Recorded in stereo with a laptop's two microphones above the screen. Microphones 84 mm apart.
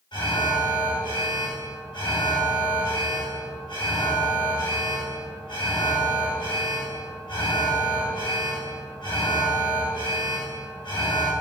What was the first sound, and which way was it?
An alarm, 65° left (ahead or behind).